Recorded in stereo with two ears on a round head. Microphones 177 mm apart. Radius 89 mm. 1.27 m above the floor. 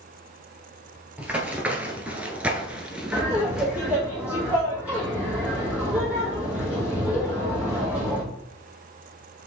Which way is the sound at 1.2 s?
5° right (ahead or behind).